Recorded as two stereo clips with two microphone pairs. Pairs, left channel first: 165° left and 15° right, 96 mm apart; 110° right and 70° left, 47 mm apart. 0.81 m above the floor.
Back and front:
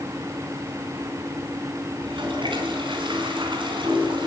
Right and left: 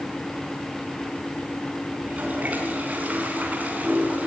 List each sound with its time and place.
2.0 s a toilet flushing: 10° left, 4.5 m